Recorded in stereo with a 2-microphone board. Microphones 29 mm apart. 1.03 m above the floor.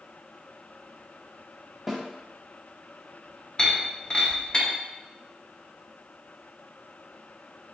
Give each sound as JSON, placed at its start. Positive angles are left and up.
{"t": 1.9, "sound": "a snare drum", "side_deg": -5, "distance_m": 1.0}
{"t": 3.6, "sound": "breaking glass", "side_deg": 35, "distance_m": 1.5}